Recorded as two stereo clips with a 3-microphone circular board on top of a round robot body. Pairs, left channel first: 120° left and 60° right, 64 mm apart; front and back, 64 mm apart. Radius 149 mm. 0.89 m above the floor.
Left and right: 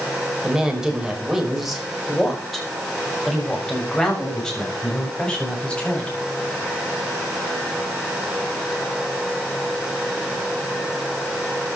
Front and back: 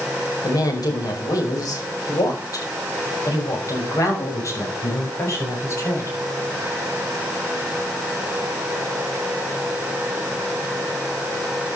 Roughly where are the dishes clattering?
No dishes clattering in this recording.